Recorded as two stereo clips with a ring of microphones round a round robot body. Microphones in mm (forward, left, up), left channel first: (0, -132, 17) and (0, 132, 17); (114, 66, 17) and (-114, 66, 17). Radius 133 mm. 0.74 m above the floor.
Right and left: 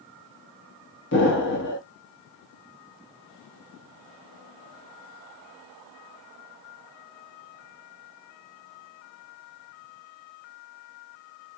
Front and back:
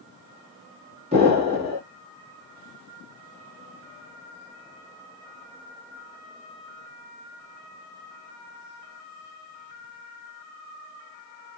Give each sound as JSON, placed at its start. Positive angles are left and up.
{"t": 1.1, "sound": "an explosion", "azimuth_deg": -120, "distance_m": 1.5}